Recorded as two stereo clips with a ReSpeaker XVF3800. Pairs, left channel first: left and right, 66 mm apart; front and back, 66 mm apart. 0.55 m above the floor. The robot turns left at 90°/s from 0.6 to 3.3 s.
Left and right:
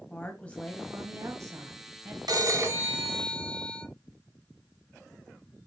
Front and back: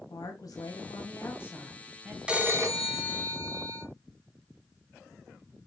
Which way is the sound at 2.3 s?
105° right.